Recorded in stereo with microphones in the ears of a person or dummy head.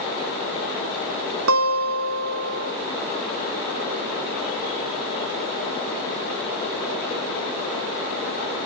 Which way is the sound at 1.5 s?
70° right (ahead or behind).